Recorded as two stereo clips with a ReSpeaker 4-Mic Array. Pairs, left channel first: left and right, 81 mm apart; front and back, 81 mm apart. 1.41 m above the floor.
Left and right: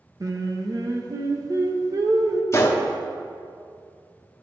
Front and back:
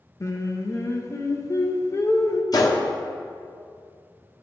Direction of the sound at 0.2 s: 50° right.